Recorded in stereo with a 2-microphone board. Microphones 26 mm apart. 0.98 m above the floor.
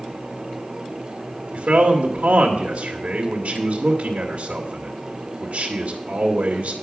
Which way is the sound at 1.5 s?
75° right (ahead or behind).